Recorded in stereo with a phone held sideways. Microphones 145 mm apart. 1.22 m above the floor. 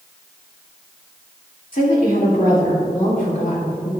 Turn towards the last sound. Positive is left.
turn(degrees=70)  # may be behind; listen again after turning